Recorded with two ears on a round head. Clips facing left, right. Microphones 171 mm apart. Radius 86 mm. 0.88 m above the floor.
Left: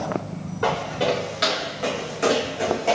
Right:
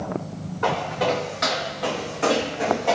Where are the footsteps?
45° left (ahead or behind), 5 m; by 3.0 s 25° left (ahead or behind), 3 m.